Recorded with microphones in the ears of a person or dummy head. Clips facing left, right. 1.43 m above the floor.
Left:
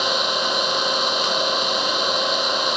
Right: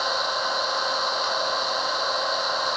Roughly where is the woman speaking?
I don't hear a woman speaking.